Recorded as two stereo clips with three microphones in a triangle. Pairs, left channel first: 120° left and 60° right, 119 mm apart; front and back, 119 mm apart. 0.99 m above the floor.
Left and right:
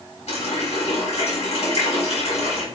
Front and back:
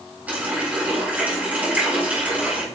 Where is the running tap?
105° left, 4 m.